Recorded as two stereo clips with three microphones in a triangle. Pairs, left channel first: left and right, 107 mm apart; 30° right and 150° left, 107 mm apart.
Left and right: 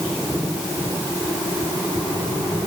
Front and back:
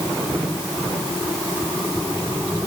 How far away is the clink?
I don't hear a clink.